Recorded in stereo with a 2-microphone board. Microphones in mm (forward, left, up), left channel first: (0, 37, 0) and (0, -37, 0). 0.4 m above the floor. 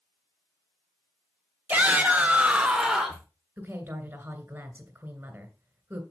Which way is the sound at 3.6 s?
30° right (ahead or behind).